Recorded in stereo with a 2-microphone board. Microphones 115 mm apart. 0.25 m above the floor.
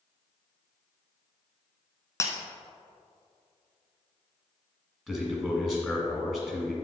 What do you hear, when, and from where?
2.2 s breaking glass: 25° left (ahead or behind), 0.8 m
5.1 s a man speaking: centre (ahead or behind), 1.9 m